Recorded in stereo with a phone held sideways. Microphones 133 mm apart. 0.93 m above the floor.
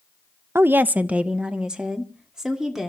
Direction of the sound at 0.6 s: 20° right (ahead or behind).